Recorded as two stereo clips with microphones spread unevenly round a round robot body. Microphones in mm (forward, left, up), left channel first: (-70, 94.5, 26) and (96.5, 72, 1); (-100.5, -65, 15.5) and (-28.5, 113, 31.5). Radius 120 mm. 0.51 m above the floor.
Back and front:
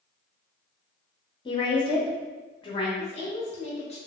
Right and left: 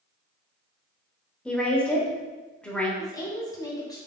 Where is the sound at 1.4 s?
170° right, 0.7 m.